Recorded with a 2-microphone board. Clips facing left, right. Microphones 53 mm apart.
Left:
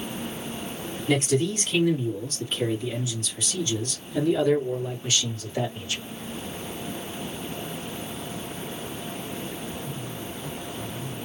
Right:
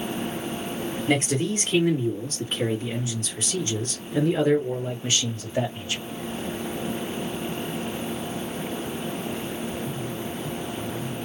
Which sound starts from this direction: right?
A man speaking, at 1.1 s.